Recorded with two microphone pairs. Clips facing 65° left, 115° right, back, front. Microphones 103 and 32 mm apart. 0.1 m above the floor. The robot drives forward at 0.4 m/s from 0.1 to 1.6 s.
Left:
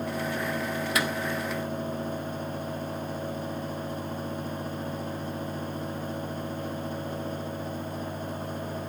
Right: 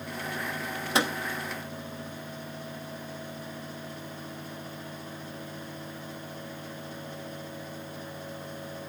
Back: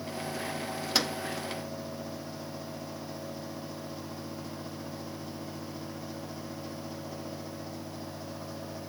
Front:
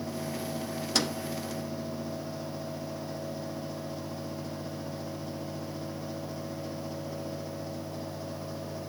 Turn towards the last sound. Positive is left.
turn(degrees=-130)